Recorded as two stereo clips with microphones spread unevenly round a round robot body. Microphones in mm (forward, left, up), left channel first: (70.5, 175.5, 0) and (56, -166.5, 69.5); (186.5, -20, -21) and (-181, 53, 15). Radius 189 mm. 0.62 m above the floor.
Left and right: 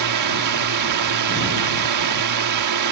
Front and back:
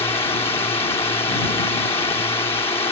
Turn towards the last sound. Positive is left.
turn(degrees=-85)